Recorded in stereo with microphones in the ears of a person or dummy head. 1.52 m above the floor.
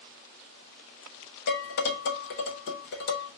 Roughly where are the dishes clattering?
Left.